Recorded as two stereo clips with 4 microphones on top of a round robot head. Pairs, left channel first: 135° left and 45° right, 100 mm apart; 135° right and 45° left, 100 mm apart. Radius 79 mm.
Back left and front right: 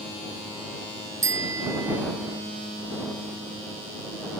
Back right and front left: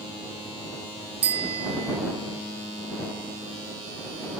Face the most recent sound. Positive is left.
turn(degrees=15)